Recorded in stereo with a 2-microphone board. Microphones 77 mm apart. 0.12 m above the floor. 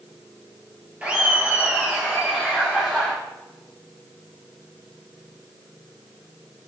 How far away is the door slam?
No door slam in this recording.